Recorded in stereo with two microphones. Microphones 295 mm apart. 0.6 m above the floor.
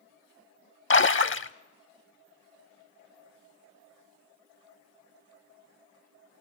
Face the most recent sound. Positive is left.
turn(degrees=45)  # may be behind; listen again after turning